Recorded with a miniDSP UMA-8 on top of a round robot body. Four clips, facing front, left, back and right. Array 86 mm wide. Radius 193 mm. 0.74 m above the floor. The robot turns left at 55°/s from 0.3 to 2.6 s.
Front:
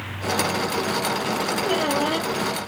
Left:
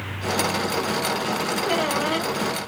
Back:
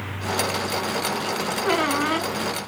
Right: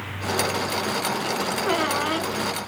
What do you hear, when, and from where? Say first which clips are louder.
1.6 s a squeak: even, back 2 dB; 150° right, 1.3 m; by 2.3 s 170° left, 1.3 m